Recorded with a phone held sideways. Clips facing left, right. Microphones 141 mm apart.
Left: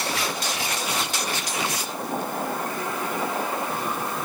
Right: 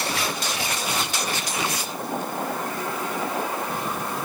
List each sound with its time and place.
Only background noise.